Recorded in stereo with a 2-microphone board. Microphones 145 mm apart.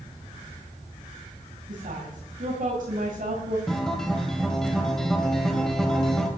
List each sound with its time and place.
1.7 s a woman speaking: 70° right (ahead or behind), 3 m
3.7 s a guitar: 5° left (ahead or behind), 2 m